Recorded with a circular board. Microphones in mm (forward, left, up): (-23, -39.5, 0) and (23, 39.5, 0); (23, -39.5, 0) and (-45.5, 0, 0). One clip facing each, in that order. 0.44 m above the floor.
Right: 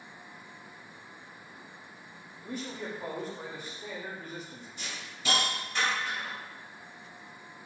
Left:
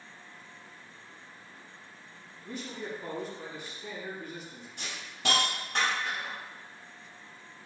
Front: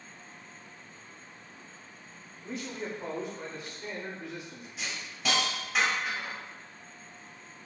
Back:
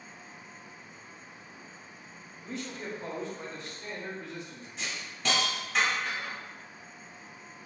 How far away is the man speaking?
About 1.1 m.